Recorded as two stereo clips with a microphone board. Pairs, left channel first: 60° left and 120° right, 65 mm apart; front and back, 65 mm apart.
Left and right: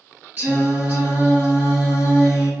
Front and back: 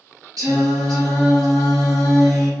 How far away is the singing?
About 1.8 m.